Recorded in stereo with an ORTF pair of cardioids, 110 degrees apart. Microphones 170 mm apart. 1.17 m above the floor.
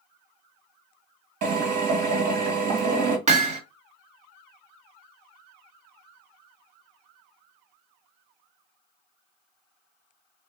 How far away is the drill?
About 1.6 m.